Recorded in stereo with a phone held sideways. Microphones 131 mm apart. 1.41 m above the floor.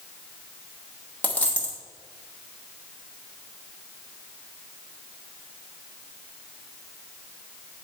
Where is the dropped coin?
10° left (ahead or behind), 0.9 m.